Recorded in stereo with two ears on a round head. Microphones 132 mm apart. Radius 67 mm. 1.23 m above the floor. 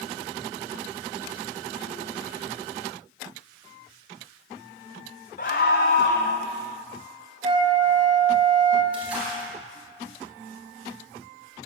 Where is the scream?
55° left (ahead or behind), 0.8 m; by 6.4 s 65° left (ahead or behind), 0.7 m.